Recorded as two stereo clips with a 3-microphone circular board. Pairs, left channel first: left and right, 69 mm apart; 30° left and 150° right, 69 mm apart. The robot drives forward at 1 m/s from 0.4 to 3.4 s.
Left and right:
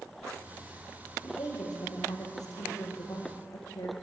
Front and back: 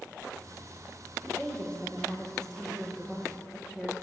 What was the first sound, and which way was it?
A woman speaking, 105° left.